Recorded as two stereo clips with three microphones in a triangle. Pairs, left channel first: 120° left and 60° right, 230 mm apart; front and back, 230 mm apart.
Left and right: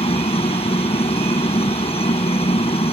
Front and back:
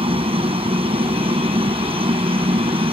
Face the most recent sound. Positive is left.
turn(degrees=145)